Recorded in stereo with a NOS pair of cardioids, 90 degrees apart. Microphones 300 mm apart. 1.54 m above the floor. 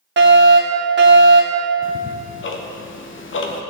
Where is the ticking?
40° left, 1.3 m.